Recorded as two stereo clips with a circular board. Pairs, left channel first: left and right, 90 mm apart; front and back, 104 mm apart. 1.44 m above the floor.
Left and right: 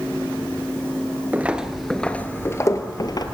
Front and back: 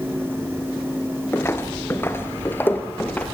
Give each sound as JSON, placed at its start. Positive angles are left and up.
{"t": 1.3, "sound": "footsteps", "azimuth_deg": -40, "distance_m": 1.5}